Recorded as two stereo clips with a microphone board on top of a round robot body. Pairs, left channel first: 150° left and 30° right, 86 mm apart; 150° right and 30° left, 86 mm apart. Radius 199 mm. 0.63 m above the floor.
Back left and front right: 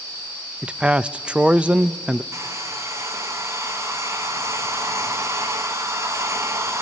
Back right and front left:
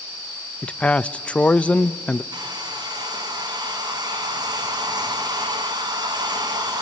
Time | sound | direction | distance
0.6 | a man speaking | 90° right | 0.5 m
2.3 | a hair dryer | 20° left | 1.2 m